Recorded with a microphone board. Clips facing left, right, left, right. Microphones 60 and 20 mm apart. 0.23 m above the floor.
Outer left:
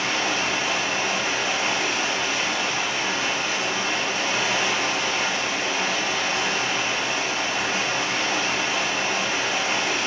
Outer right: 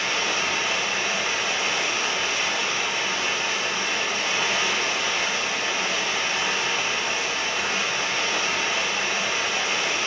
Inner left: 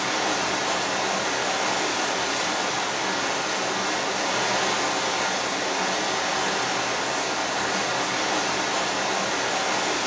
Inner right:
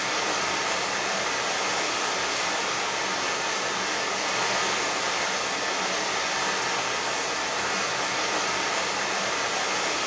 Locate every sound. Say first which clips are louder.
0.0 s running water: outer left 1 dB, inner left 2 dB; 85° left, 2.5 m